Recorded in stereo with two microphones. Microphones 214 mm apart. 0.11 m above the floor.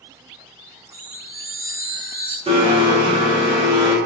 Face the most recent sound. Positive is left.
turn(degrees=-25)  # may be behind; listen again after turning